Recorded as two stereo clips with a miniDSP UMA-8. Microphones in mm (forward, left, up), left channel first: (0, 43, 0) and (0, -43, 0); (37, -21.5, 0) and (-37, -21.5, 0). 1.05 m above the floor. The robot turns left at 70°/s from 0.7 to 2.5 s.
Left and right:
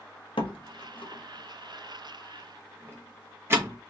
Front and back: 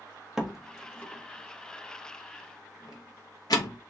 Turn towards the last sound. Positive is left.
turn(degrees=-30)